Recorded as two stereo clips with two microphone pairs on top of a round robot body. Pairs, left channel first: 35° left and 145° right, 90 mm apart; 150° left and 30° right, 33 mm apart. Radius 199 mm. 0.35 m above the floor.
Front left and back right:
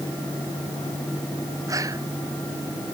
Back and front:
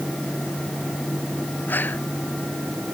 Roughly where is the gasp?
Behind.